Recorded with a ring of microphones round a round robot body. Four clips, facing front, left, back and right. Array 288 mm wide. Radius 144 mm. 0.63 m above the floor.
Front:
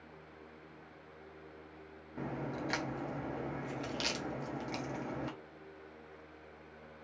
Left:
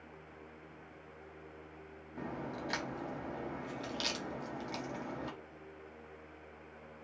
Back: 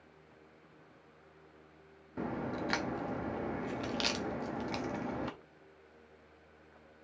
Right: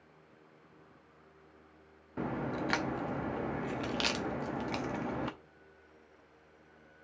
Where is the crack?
115° right, 0.7 m.